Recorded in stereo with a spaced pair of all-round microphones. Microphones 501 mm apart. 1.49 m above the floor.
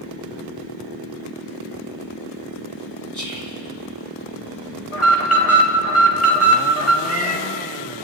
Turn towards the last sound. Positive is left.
turn(degrees=15)  # may be behind; listen again after turning